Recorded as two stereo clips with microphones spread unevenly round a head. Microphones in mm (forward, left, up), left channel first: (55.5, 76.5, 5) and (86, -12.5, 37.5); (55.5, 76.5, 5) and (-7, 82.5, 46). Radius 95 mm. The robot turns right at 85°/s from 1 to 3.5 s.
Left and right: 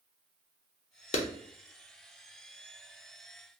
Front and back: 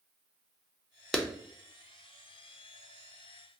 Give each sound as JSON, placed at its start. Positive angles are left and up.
{"t": 1.1, "sound": "a clap", "azimuth_deg": 105, "distance_m": 0.5}